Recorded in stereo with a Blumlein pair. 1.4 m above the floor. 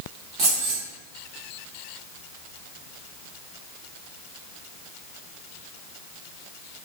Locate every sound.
0.4 s keys jangling: 40° right, 1.2 m